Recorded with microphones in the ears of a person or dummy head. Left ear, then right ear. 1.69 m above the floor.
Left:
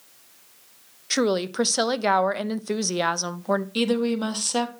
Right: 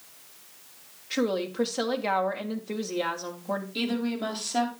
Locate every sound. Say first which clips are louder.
1.1 s a woman speaking: left 5 dB; 85° left, 0.6 m
3.8 s a woman speaking: left 7 dB; 55° left (ahead or behind), 1.3 m